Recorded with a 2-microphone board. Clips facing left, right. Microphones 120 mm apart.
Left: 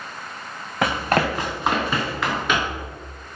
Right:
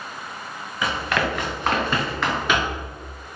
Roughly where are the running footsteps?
Left.